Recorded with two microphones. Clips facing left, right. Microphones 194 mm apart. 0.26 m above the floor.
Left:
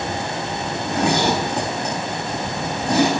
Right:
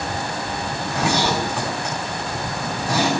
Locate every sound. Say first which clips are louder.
0.7 s a zipper: left 3 dB; 35° left (ahead or behind), 5 m